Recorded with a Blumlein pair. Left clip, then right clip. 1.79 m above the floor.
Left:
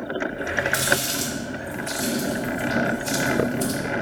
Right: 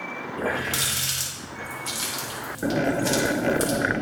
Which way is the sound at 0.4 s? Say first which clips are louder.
Even; 35° right.